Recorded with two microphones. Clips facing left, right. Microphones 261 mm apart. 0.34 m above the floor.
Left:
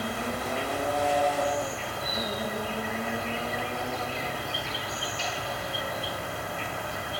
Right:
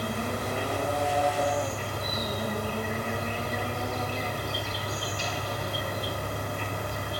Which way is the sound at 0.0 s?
45° right (ahead or behind).